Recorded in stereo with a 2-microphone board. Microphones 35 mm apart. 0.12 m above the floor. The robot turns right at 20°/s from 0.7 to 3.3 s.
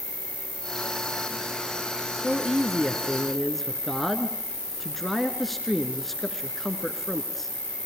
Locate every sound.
0.0 s an insect: 40° left, 4 m; by 7.9 s 90° left, 4 m
2.1 s a man speaking: 5° right (ahead or behind), 1.5 m; by 7.5 s 5° left (ahead or behind), 1.5 m